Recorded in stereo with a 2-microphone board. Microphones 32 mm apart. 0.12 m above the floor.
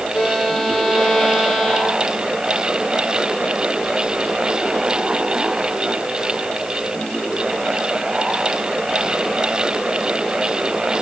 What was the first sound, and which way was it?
A violin, 5° left (ahead or behind).